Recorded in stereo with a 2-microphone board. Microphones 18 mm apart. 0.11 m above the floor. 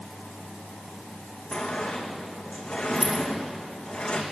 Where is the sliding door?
75° left (ahead or behind), 2.5 m.